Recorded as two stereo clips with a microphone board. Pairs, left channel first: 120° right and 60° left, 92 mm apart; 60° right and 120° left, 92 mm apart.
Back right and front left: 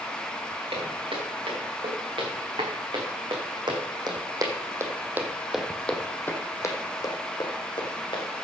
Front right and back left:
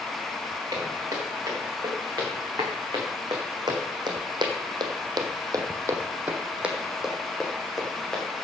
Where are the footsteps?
65° left, 5 m; by 8.2 s 145° right, 3 m.